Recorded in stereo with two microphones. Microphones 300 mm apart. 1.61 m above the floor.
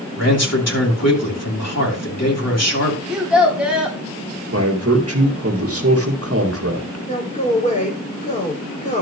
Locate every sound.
0.2 s a man speaking: 50° left (ahead or behind), 2.5 m
3.1 s a child speaking: 5° right (ahead or behind), 3 m
4.5 s a man speaking: 45° right (ahead or behind), 1.8 m
7.1 s a man speaking: 25° left (ahead or behind), 4.5 m